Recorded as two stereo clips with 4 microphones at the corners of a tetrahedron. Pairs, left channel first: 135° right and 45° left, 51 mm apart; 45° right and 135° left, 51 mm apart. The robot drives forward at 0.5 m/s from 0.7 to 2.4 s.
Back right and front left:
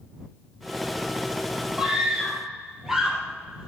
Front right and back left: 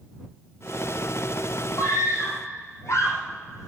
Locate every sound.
1.8 s a scream: 35° right, 6.5 m; by 3.7 s 40° right, 6 m